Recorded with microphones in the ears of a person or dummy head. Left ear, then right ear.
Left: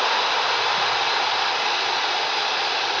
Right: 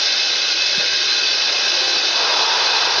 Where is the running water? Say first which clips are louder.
Right 3 dB; 55° right (ahead or behind), 2.5 m.